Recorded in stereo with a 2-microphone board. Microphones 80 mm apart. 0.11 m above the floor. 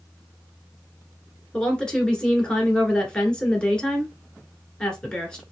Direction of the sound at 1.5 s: 10° left (ahead or behind).